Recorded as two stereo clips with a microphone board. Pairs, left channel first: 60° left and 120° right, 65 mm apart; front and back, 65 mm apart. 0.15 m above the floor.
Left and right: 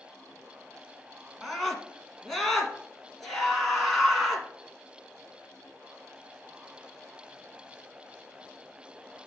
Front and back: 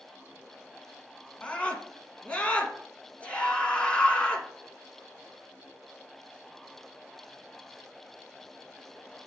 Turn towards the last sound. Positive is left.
turn(degrees=-25)